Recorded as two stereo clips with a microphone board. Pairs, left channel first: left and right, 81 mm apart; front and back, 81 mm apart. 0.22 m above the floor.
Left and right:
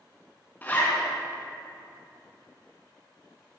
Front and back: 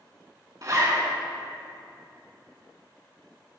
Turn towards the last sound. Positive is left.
turn(degrees=150)